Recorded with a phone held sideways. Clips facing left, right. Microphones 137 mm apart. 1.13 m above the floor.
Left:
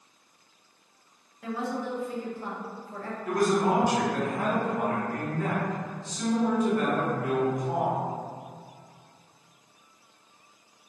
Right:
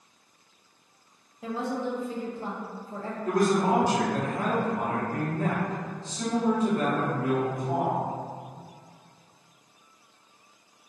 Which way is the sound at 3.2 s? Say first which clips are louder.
Right 1 dB; 30° right (ahead or behind).